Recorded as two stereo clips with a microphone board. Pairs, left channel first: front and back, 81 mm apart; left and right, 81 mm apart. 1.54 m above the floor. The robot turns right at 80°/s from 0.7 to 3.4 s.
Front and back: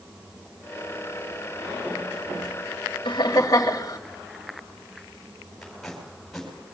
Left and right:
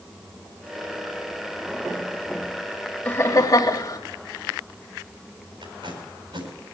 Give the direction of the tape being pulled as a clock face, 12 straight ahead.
3 o'clock.